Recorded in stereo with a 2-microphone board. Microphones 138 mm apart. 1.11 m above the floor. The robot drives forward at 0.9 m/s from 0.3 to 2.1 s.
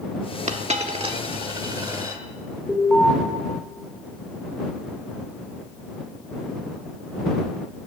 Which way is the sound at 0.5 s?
55° right (ahead or behind).